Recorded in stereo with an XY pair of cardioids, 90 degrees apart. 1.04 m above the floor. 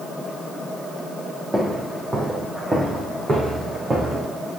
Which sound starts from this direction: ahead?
Footsteps, at 1.5 s.